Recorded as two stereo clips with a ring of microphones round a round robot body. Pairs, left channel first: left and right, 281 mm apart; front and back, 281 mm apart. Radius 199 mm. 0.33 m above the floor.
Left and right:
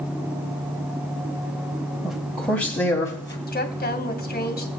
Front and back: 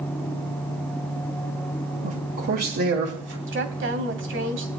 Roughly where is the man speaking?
Behind.